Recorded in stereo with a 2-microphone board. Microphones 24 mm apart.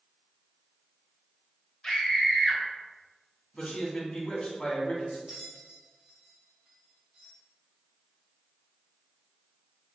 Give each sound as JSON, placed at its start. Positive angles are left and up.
{"t": 1.8, "sound": "a scream", "side_deg": 25, "distance_m": 1.4}
{"t": 3.5, "sound": "a man speaking", "side_deg": 50, "distance_m": 1.5}
{"t": 5.3, "sound": "a bell", "side_deg": -20, "distance_m": 1.2}